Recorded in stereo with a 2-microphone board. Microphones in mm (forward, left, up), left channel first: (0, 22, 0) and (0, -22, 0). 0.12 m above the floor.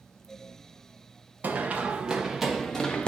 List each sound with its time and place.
1.4 s running footsteps: 40° right (ahead or behind), 0.9 m; by 3.1 s 25° left (ahead or behind), 0.8 m